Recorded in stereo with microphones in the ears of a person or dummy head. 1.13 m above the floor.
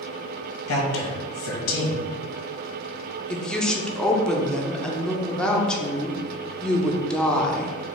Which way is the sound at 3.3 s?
5° left (ahead or behind).